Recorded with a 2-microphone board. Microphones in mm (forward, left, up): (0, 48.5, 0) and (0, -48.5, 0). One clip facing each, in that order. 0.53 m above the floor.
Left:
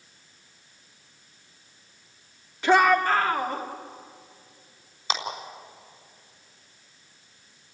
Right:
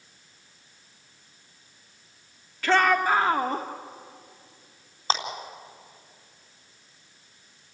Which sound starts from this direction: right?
A clap, at 5.1 s.